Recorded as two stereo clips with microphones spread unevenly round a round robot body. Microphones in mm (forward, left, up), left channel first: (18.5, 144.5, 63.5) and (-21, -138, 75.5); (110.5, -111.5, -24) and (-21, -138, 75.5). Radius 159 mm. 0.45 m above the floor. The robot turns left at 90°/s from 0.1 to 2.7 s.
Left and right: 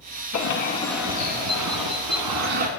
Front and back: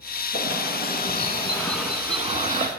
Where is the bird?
50° left, 1.8 m; by 2.7 s 165° right, 1.8 m.